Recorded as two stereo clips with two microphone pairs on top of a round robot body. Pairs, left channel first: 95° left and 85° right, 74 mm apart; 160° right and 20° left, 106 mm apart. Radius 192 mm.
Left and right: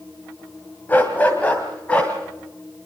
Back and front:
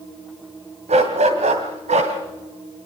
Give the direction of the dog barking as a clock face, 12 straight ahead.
11 o'clock.